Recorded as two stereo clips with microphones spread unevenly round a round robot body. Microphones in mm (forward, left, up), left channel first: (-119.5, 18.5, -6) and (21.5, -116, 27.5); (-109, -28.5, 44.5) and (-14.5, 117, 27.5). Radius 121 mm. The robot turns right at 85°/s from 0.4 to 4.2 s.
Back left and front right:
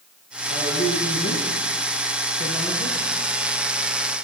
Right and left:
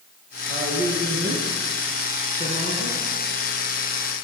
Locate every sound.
0.5 s a man speaking: 15° left, 4 m; by 3.0 s 130° right, 4 m